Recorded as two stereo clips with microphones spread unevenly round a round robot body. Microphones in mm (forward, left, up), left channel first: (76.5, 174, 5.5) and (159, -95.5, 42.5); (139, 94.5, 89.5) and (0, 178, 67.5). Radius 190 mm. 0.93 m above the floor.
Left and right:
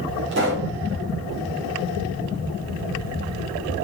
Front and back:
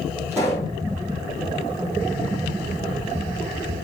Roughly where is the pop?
Behind right.